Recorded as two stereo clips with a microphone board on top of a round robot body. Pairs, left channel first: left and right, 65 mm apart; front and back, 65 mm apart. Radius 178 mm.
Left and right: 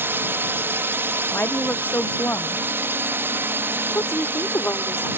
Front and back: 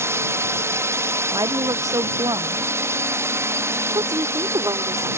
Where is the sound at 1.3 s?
155° left.